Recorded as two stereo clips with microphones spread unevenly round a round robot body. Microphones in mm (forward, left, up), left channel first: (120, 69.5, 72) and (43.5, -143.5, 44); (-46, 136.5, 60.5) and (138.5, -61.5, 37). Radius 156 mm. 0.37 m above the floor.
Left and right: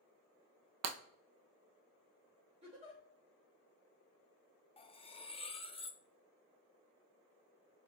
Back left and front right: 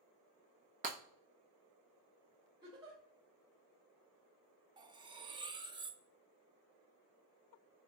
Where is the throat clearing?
No throat clearing in this recording.